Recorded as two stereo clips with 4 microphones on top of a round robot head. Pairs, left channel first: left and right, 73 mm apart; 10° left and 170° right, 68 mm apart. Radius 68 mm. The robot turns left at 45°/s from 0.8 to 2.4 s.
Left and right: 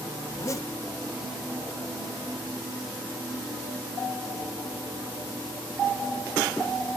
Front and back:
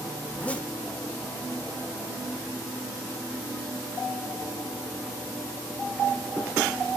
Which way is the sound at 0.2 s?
70° left.